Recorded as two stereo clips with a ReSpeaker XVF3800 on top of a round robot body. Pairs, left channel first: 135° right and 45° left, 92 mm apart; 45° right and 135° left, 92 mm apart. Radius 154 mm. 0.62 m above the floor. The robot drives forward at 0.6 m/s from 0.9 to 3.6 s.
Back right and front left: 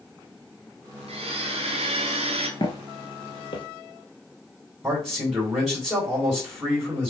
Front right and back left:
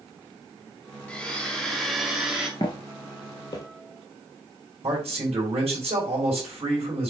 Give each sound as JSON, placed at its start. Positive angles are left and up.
{"t": 1.1, "sound": "a blender", "azimuth_deg": 35, "distance_m": 2.0}
{"t": 2.6, "sound": "footsteps", "azimuth_deg": -95, "distance_m": 0.7}
{"t": 4.8, "sound": "a man speaking", "azimuth_deg": 125, "distance_m": 4.0}